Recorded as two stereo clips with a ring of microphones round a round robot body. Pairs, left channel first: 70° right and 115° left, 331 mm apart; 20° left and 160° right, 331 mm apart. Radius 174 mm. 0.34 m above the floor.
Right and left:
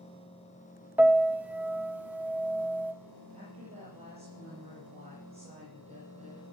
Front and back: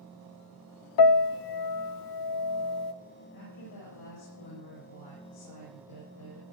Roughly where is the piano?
Ahead left.